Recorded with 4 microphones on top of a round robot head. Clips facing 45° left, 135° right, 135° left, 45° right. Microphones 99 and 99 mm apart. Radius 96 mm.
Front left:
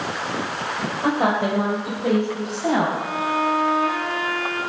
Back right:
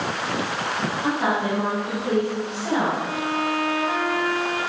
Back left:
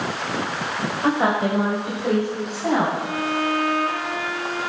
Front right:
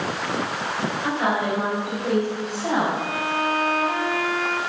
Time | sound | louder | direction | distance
1.0 | a woman speaking | front left 4 dB, back left 4 dB | 80° left | 3.5 m
3.0 | a violin | front left 2 dB, back left 1 dB | 60° right | 4.5 m